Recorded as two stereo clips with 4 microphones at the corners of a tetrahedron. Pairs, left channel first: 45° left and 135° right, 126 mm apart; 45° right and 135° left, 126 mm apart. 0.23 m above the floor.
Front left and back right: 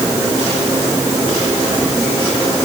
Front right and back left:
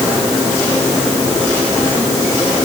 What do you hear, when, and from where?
Only background noise.